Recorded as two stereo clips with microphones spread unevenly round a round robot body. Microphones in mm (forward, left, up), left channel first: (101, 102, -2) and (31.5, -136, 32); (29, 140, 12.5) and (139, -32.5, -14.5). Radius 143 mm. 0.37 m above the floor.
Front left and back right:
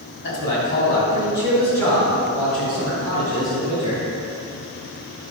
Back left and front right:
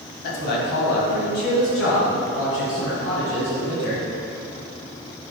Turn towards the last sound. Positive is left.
turn(degrees=175)